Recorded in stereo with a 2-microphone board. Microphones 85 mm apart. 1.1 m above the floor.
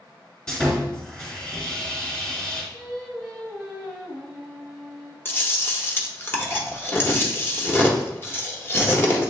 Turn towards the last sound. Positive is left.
turn(degrees=25)  # may be behind; listen again after turning